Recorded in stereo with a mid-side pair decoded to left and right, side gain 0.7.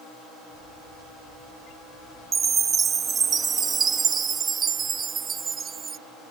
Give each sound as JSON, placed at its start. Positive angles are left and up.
{"t": 2.3, "sound": "a chime", "azimuth_deg": -30}